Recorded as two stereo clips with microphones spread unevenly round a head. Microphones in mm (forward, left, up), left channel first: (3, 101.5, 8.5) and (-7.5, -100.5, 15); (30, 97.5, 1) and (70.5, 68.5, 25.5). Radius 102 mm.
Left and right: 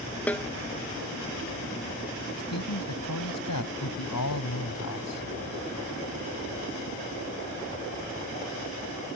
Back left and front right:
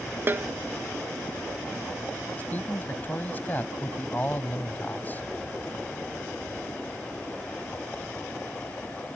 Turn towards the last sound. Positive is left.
turn(degrees=90)